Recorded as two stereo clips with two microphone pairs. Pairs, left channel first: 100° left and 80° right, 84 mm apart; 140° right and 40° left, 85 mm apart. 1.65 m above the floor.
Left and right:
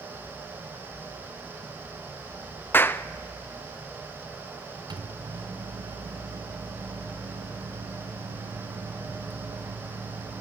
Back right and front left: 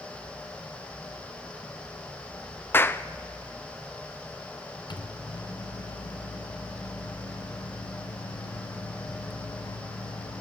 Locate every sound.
2.7 s a clap: 155° left, 0.5 m
4.9 s a microwave: 115° right, 0.9 m